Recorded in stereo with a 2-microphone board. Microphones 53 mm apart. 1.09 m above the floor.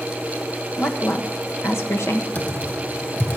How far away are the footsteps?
I don't hear footsteps.